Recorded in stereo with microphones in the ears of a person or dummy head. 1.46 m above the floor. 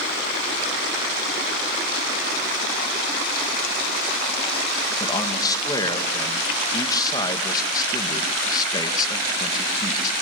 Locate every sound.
5.0 s a man speaking: 15° left (ahead or behind), 1.9 m